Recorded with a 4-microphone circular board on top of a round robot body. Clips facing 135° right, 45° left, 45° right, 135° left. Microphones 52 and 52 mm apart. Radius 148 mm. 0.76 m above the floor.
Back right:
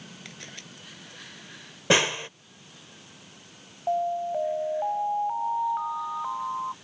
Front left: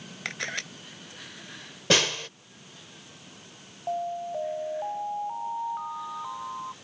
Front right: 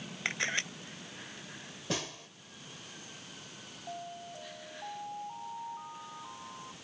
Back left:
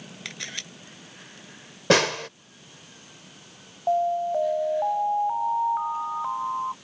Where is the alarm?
160° left.